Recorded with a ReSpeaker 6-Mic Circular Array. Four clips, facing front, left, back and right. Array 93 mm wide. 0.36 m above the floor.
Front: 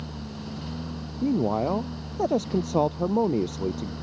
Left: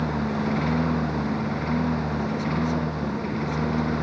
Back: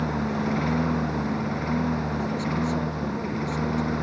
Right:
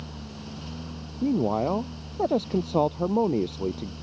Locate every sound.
0.0 s a lawn mower: 135° left; by 4.0 s 130° left
1.2 s a man speaking: 45° right